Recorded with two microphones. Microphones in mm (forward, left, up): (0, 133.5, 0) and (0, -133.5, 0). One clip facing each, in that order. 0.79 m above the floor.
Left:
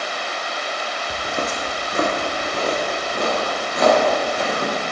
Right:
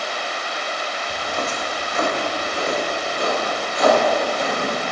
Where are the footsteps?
15° left (ahead or behind), 1.2 m; by 4.7 s 65° left (ahead or behind), 4.5 m.